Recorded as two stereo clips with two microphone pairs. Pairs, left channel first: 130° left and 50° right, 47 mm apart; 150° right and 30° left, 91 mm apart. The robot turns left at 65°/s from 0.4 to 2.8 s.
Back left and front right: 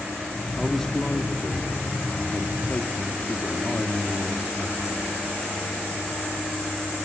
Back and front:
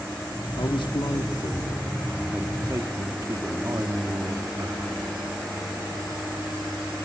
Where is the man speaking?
135° right, 1.3 m; by 4.8 s 80° left, 1.3 m.